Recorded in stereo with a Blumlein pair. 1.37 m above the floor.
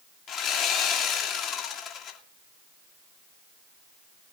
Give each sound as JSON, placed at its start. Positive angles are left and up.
{"t": 0.3, "sound": "sawing", "azimuth_deg": 35, "distance_m": 2.0}